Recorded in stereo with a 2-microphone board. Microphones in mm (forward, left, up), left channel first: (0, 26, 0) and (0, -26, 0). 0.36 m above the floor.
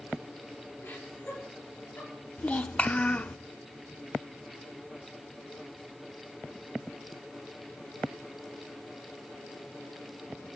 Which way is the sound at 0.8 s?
35° left (ahead or behind).